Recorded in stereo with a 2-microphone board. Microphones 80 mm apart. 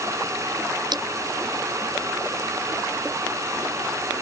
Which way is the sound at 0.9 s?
65° right (ahead or behind).